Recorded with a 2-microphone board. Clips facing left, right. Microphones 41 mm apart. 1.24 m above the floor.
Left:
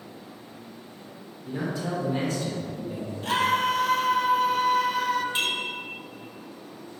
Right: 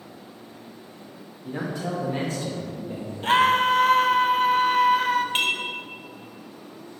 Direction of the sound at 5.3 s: 50° right (ahead or behind).